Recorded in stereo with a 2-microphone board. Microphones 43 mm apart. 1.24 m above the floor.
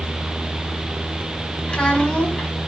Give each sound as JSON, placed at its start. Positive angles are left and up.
{"t": 1.7, "sound": "a child speaking", "side_deg": 20, "distance_m": 2.5}